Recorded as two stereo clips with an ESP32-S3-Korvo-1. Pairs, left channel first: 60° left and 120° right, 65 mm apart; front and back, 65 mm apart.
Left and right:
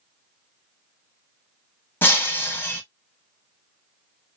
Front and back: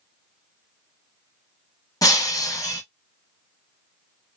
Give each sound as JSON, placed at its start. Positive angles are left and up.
{"t": 2.0, "sound": "breaking glass", "azimuth_deg": 10, "distance_m": 1.5}